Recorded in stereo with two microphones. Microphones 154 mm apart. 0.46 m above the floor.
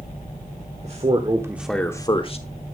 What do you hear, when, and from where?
0.8 s a man speaking: 45° right (ahead or behind), 1.4 m; by 2.5 s 45° left (ahead or behind), 1.4 m